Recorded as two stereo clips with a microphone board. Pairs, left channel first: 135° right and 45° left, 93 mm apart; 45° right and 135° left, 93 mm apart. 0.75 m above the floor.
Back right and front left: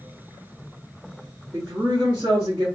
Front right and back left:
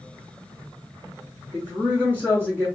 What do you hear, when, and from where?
1.5 s a woman speaking: 75° left, 1.2 m